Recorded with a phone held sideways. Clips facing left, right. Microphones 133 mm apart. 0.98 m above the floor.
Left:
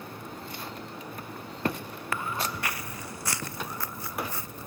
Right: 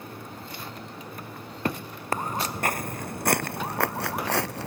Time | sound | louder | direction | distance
2.1 | footsteps | right 4 dB | 40° right (ahead or behind) | ?